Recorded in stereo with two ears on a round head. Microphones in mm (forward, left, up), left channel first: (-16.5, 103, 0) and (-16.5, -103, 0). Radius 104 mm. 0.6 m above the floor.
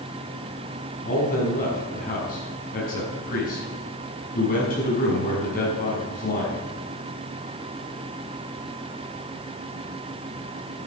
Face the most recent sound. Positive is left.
turn(degrees=40)  # may be behind; listen again after turning